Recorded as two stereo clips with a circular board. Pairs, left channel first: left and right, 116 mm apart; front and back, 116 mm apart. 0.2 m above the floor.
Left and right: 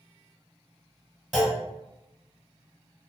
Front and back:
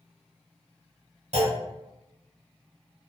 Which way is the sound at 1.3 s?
Straight behind.